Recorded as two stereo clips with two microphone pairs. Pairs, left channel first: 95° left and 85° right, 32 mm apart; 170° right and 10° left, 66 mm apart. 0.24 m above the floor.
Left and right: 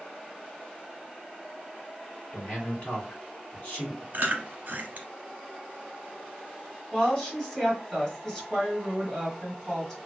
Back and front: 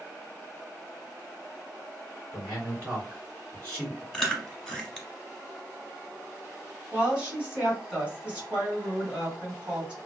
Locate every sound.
2.3 s a man speaking: 65° left, 2.0 m
4.1 s chewing: 85° right, 0.8 m
6.9 s a woman speaking: 60° left, 1.3 m